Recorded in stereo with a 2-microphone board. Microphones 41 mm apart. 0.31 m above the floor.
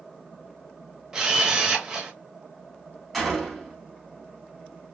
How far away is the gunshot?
About 2.0 m.